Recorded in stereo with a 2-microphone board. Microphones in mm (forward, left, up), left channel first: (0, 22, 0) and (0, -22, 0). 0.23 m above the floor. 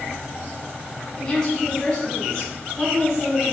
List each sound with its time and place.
1.2 s a woman speaking: 20° left (ahead or behind), 1.3 m